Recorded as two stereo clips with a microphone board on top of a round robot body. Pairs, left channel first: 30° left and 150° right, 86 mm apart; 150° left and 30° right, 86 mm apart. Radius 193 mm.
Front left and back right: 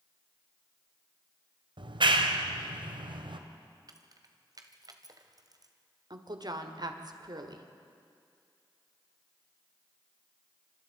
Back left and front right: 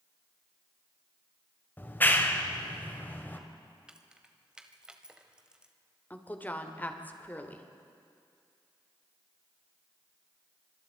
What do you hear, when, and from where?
1.8 s a clap: 145° right, 1.8 m
3.9 s keys jangling: 110° right, 1.6 m
6.1 s a woman speaking: 145° right, 2.5 m